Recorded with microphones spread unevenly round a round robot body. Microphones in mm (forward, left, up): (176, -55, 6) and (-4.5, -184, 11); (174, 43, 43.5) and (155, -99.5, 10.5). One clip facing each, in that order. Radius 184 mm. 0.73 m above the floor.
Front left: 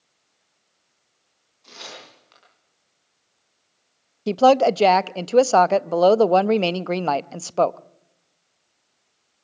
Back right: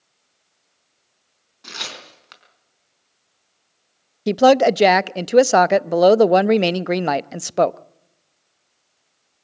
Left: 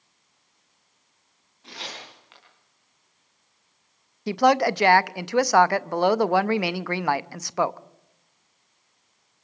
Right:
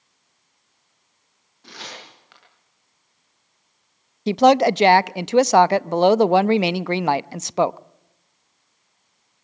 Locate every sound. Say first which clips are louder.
1.6 s tearing paper: back right 3 dB, even; 170° right, 5 m
4.3 s a woman speaking: back right 3 dB, right 5 dB; 75° right, 0.5 m